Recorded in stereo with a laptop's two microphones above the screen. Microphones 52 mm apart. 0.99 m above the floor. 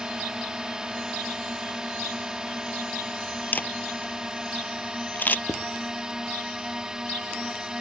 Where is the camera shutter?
35° left (ahead or behind).